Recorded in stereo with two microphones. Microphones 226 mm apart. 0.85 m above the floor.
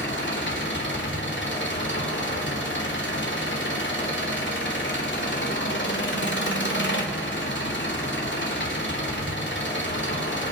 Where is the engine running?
55° left (ahead or behind), 2 m.